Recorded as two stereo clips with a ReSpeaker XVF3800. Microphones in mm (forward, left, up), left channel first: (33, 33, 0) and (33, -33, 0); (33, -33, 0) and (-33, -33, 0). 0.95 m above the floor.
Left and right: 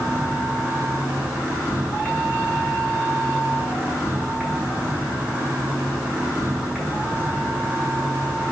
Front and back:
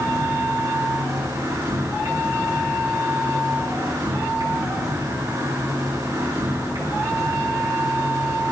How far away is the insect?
About 4.5 m.